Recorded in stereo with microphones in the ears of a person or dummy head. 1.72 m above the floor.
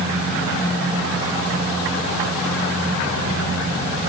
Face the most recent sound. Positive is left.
No sound to turn to.